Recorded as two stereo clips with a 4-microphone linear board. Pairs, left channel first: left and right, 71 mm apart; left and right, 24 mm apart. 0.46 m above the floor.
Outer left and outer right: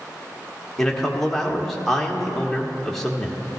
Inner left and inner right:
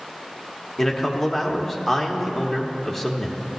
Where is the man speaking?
5° left (ahead or behind), 1.0 m.